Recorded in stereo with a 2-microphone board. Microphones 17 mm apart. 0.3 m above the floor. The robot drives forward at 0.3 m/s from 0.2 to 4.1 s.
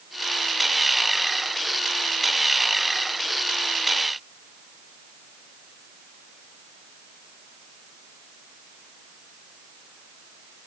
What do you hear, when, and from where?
Only background noise.